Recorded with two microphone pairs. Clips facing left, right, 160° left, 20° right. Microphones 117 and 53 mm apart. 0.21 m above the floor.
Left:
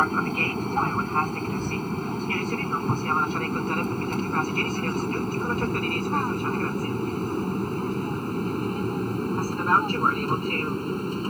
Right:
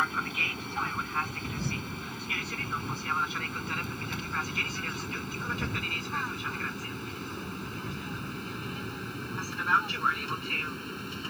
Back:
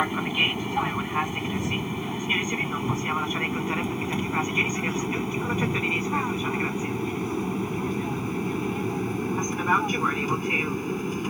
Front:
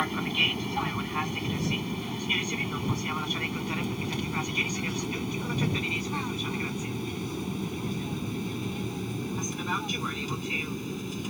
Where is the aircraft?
95° left; by 11.3 s 120° left.